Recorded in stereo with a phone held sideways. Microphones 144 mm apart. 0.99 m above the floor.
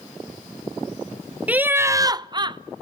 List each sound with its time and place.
1.5 s laughter: 10° right (ahead or behind), 0.8 m; by 2.6 s 30° right (ahead or behind), 0.7 m